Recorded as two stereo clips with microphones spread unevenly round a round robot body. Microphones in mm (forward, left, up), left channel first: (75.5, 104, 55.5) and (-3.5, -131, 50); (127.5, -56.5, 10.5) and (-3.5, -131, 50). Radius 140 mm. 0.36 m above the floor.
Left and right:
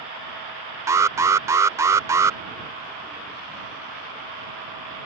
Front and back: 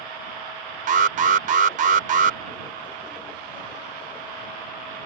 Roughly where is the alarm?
Behind.